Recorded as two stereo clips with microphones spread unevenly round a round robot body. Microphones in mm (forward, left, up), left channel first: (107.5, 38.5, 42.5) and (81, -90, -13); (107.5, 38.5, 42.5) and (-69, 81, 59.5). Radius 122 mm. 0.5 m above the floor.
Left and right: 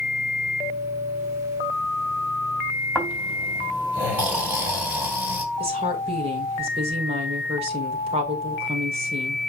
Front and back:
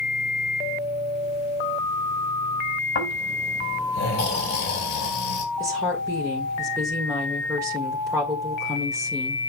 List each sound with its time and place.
3.0 s snoring: 30° right, 4 m
5.6 s a woman speaking: 120° right, 1.7 m